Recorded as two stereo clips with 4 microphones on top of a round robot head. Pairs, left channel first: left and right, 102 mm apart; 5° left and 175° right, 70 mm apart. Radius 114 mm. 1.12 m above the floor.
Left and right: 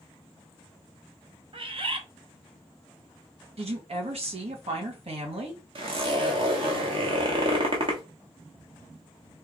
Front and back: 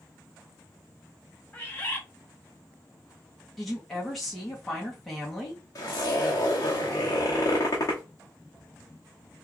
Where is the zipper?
55° right, 1.2 m.